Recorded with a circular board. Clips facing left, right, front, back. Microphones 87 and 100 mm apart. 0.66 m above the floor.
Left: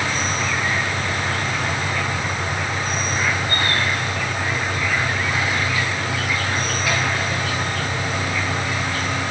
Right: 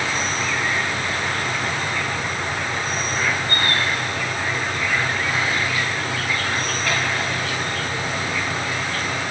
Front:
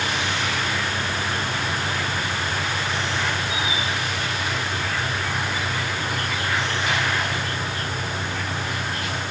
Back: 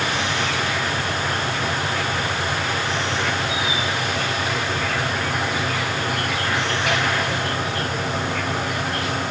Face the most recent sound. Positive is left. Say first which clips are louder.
# left 1 dB, back 2 dB
turn(degrees=175)